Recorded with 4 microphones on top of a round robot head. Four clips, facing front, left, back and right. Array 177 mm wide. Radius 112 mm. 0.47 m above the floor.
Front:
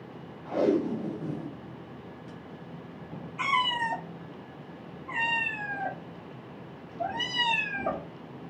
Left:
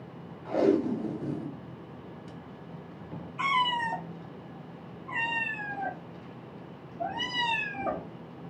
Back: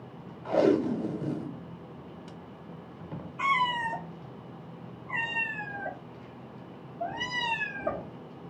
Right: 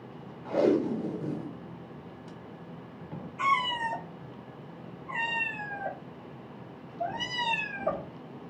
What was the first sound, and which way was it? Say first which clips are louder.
Tape being pulled: even, back 2 dB; 175° right.